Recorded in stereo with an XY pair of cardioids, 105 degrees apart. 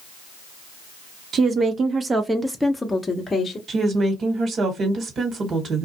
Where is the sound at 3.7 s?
50° right, 1.3 m.